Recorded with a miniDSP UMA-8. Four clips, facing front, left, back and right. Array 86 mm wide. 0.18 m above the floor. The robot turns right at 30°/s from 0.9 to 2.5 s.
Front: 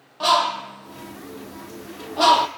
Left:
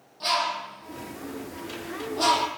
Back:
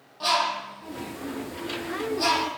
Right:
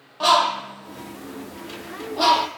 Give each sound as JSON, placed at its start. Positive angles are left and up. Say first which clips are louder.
{"t": 0.2, "sound": "a bird", "louder": "right 9 dB, front 6 dB", "azimuth_deg": -60, "distance_m": 1.6}